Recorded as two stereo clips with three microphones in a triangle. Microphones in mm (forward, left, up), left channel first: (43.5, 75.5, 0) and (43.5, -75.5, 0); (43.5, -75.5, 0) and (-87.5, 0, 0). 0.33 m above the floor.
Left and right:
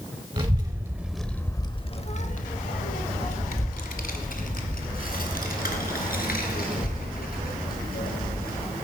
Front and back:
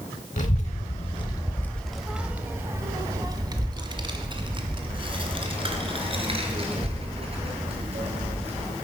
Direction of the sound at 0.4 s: 40° right.